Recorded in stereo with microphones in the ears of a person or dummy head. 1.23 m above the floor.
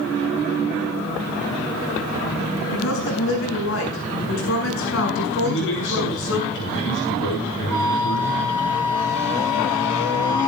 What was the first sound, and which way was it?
A woman speaking, 75° left (ahead or behind).